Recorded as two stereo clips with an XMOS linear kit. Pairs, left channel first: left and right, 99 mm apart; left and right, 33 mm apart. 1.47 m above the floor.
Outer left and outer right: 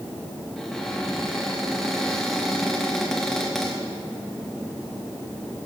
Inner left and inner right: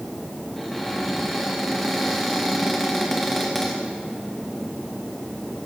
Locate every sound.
0.6 s a cupboard door: 5° left (ahead or behind), 2.5 m